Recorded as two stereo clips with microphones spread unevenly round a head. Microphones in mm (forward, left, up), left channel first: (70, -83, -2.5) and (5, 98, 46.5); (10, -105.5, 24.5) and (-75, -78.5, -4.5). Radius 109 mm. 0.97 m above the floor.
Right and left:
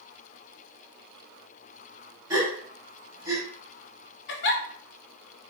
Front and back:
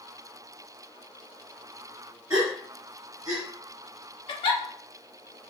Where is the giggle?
40° right, 0.6 m.